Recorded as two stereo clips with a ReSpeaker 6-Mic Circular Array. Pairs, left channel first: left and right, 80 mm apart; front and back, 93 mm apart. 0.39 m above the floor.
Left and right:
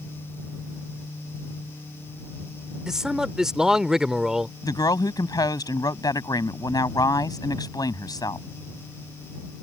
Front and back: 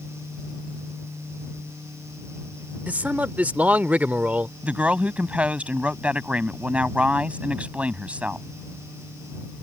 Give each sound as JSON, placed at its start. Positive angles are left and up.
{"t": 2.9, "sound": "a man speaking", "azimuth_deg": -155}
{"t": 4.6, "sound": "a woman speaking", "azimuth_deg": 105}